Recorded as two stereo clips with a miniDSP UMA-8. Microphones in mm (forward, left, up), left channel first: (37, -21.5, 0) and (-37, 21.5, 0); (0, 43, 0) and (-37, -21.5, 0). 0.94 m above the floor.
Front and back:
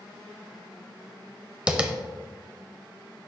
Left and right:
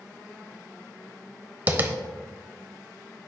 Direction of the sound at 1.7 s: 150° right.